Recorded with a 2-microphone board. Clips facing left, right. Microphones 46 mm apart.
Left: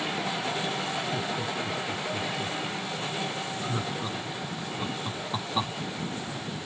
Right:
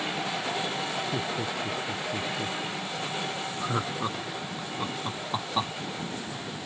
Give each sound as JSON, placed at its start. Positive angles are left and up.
{"t": 1.1, "sound": "laughter", "side_deg": -50}